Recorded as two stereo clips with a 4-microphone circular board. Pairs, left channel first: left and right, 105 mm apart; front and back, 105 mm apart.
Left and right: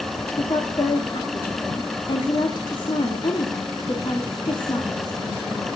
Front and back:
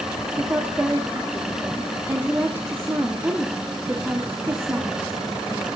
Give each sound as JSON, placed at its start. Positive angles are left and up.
{"t": 0.4, "sound": "a woman speaking", "azimuth_deg": 115, "distance_m": 1.7}